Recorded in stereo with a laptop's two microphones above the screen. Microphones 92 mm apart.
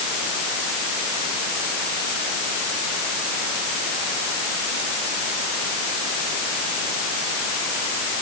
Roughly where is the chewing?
No chewing in this recording.